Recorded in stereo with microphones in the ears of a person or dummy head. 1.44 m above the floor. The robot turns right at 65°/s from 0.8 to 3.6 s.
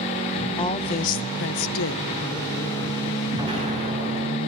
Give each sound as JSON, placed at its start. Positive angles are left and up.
{"t": 0.6, "sound": "a woman speaking", "azimuth_deg": 30, "distance_m": 0.8}
{"t": 3.3, "sound": "an explosion", "side_deg": -20, "distance_m": 3.5}